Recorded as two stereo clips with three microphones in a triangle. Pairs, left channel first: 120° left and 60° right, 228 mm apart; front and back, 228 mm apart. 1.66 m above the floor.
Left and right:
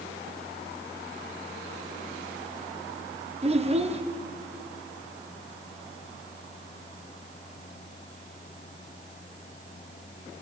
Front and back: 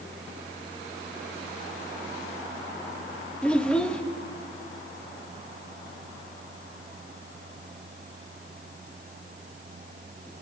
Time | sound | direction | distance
3.4 | a child speaking | 80° right | 1.0 m